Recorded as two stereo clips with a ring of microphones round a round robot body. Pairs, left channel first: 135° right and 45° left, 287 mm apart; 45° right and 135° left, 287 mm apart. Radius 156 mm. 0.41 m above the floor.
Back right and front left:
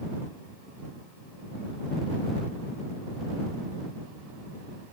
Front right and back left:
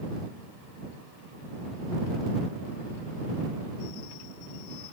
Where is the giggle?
I don't hear a giggle.